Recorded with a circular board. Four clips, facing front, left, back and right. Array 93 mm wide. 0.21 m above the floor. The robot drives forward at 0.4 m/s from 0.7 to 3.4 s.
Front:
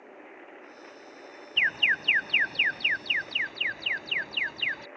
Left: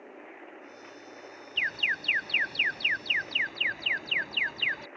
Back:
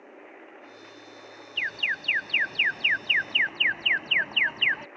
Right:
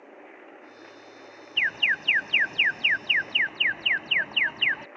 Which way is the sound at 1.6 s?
40° right.